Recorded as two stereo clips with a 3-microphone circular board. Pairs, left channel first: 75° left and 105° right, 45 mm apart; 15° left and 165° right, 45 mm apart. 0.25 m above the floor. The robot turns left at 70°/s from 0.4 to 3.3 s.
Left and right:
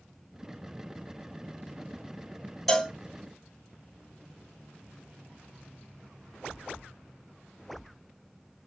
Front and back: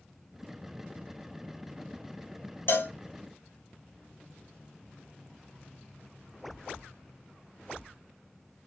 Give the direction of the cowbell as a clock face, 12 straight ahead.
12 o'clock.